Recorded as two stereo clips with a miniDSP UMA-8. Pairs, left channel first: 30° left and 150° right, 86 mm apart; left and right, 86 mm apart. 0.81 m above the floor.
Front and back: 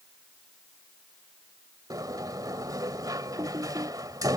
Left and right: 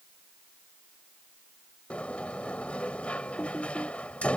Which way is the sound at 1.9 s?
165° left.